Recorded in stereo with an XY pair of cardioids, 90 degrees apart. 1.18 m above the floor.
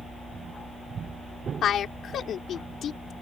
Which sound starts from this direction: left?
A woman speaking, at 1.6 s.